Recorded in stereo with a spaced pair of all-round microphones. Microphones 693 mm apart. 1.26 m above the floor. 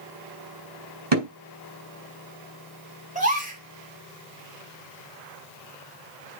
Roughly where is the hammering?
Right.